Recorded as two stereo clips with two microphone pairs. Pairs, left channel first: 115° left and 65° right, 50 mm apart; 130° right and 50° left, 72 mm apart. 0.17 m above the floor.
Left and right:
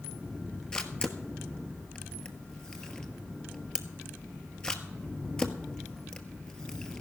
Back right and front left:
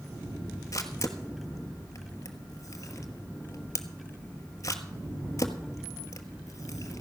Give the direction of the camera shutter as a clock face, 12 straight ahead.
6 o'clock.